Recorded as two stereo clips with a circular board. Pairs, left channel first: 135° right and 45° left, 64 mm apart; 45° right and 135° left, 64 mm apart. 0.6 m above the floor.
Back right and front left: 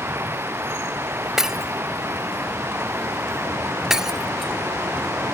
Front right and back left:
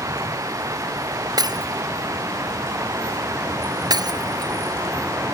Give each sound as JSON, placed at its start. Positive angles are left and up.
{"t": 0.0, "sound": "running water", "azimuth_deg": 95}
{"t": 1.4, "sound": "breaking glass", "azimuth_deg": 130}